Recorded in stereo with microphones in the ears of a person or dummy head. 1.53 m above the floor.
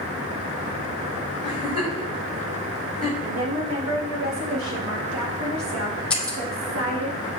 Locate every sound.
1.4 s a giggle: 25° right (ahead or behind), 5 m
3.2 s a woman speaking: 75° right (ahead or behind), 3 m
6.1 s breaking glass: 5° left (ahead or behind), 1.4 m